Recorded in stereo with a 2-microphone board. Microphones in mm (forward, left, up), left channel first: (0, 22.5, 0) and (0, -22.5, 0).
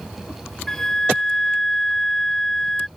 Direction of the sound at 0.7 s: 10° left (ahead or behind).